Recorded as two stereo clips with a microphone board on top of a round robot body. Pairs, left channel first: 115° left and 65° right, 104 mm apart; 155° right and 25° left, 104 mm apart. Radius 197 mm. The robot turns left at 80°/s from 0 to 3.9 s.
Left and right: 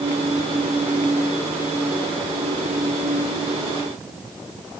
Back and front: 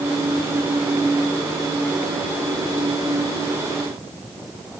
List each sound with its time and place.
Only background noise.